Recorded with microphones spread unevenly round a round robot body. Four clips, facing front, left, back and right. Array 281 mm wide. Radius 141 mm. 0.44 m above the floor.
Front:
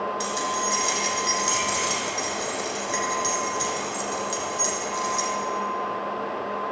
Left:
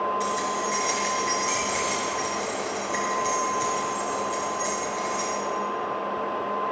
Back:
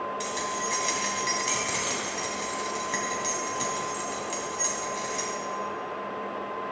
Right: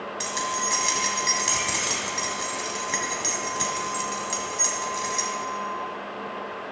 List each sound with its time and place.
0.2 s keys jangling: 100° right, 2.5 m